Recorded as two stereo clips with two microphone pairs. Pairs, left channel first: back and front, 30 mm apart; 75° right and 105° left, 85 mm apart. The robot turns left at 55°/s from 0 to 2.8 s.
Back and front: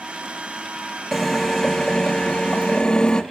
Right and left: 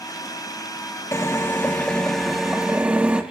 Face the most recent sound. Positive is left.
turn(degrees=165)